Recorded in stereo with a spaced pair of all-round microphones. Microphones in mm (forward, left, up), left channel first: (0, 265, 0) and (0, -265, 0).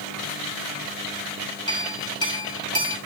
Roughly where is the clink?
Centre.